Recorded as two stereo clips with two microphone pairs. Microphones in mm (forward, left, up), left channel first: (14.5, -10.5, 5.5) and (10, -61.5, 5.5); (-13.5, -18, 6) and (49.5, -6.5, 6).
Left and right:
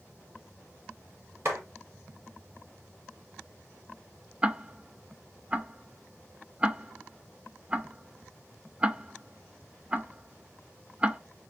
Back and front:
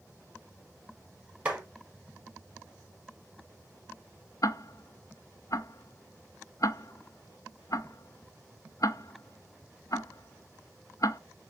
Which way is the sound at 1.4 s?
60° right.